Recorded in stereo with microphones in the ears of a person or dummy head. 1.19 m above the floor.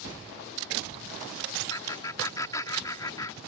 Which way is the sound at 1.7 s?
15° left (ahead or behind).